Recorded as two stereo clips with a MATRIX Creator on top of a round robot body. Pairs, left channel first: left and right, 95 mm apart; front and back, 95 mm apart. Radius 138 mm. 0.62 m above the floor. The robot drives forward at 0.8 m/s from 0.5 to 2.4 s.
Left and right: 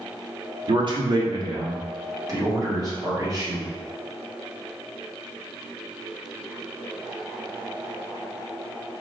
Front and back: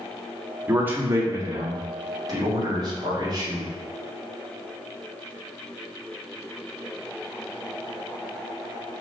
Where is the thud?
No thud in this recording.